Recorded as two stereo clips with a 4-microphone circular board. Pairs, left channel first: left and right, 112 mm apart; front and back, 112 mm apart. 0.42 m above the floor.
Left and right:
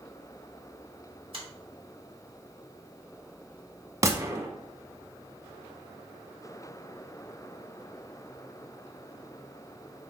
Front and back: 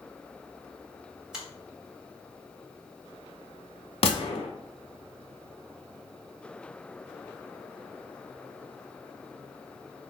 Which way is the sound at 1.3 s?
100° right.